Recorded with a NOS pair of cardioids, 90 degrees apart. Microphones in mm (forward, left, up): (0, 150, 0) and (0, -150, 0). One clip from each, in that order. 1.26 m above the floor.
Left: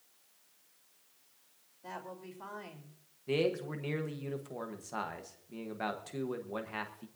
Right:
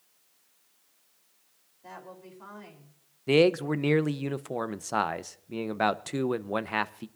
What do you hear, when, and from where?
1.8 s a woman speaking: 15° left, 3 m
3.3 s a man speaking: 55° right, 0.8 m